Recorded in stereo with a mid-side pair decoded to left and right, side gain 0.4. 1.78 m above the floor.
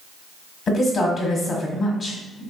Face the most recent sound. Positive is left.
turn(degrees=45)